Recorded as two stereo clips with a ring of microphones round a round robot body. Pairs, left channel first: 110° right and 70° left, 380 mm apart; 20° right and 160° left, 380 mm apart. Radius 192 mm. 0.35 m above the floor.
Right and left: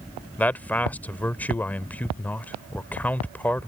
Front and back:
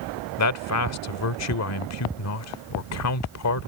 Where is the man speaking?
30° right.